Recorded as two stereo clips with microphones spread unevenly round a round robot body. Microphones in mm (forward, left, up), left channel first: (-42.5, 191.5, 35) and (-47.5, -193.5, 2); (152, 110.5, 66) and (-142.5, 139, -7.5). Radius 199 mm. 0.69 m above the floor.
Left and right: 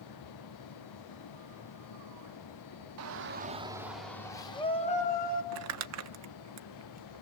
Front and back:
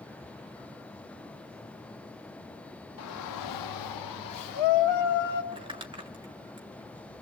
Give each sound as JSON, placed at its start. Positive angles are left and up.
{"t": 3.0, "sound": "a shout", "azimuth_deg": -55, "distance_m": 0.9}
{"t": 5.5, "sound": "crumpling", "azimuth_deg": -125, "distance_m": 0.8}